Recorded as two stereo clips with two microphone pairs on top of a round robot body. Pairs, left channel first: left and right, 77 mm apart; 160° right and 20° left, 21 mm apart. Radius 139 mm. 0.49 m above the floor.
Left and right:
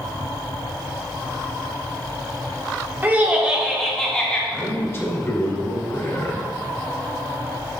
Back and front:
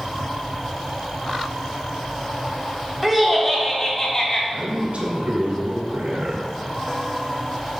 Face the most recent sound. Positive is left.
turn(degrees=30)